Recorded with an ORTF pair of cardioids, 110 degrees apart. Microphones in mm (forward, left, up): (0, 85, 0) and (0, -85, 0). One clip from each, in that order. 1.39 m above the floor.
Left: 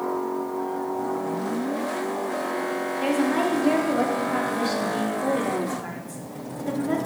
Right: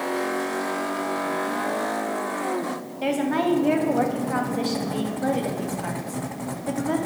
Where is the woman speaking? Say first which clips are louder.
Right 1 dB; 10° right, 0.7 m.